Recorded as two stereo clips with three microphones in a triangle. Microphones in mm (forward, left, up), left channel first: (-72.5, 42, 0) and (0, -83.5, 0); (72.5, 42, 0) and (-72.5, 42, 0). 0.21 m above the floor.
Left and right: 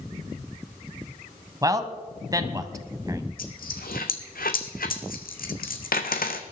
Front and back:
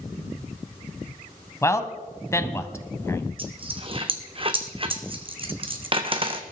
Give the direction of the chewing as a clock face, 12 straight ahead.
No chewing in this recording.